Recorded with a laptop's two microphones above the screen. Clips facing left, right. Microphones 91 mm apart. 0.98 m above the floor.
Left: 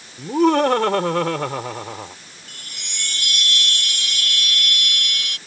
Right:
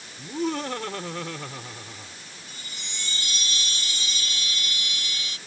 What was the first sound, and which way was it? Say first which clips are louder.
Laughter: left 12 dB; 80° left.